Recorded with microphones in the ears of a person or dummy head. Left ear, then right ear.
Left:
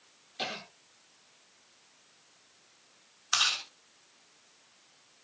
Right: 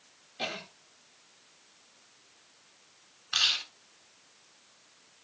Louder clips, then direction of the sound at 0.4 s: Right 1 dB; 40° left (ahead or behind).